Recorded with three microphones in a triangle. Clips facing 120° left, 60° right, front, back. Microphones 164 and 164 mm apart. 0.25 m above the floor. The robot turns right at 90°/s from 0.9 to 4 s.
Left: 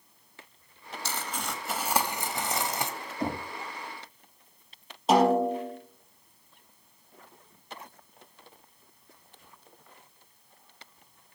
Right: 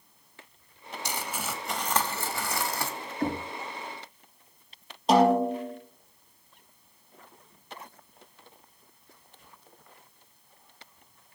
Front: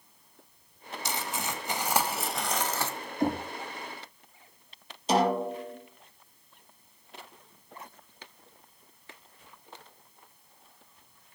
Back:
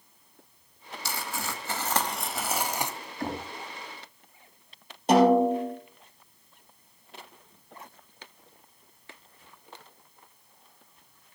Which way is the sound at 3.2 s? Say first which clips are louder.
Right 2 dB, front 6 dB; 60° left.